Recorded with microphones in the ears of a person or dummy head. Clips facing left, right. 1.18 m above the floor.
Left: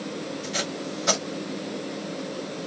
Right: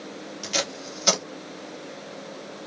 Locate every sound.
0.4 s tape being pulled: 45° right (ahead or behind), 1.8 m